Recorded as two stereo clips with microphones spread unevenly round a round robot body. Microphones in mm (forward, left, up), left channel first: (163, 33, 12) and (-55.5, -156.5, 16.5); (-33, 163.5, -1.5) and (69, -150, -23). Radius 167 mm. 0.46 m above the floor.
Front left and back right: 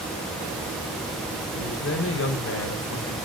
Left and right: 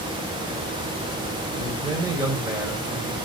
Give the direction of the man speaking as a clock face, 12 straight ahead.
12 o'clock.